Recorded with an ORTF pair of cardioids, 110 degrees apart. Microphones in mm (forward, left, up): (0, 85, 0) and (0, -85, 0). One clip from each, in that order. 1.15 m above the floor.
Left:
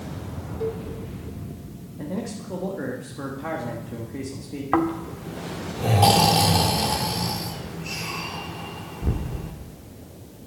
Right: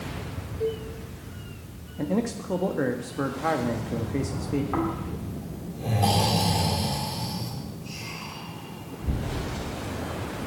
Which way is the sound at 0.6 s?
10° left.